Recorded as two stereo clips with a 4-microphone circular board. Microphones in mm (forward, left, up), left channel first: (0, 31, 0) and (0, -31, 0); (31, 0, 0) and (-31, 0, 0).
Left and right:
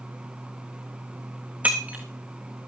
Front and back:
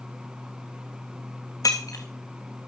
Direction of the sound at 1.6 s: 25° right.